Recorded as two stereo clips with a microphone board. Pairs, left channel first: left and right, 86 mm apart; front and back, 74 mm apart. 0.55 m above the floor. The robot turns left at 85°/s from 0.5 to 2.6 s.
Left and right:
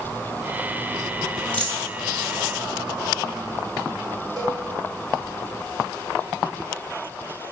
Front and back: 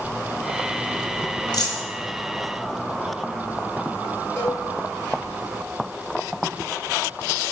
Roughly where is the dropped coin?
Ahead.